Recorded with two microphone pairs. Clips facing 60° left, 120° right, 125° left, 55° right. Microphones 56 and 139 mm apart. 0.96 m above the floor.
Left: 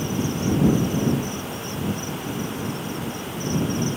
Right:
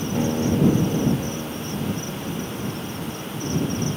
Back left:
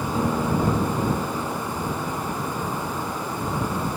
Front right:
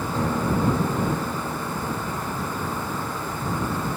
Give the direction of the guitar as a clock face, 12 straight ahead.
5 o'clock.